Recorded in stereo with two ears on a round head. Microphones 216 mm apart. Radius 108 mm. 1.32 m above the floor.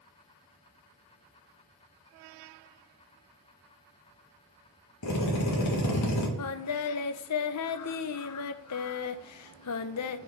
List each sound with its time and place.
5.0 s a drill: 80° left, 1.8 m
6.4 s singing: 70° left (ahead or behind), 0.5 m